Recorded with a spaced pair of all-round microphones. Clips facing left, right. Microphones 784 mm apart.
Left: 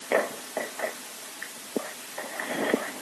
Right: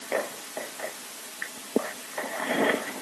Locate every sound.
Only background noise.